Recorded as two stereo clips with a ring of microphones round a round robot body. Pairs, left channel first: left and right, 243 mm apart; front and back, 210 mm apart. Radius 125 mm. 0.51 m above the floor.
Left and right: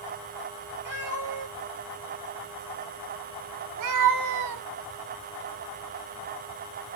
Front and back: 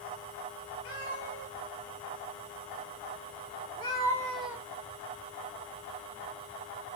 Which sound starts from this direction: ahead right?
A cat meowing, at 0.8 s.